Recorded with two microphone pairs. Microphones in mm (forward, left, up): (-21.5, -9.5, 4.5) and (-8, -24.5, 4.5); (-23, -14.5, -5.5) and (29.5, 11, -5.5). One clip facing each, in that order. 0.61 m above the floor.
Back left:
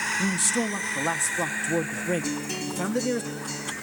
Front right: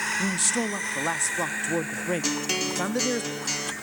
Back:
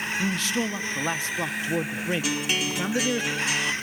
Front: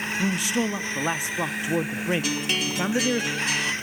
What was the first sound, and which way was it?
A man speaking, straight ahead.